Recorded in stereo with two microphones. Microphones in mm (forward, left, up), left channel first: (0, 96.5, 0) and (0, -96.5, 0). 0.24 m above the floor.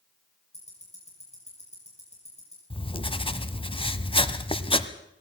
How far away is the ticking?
About 6.5 m.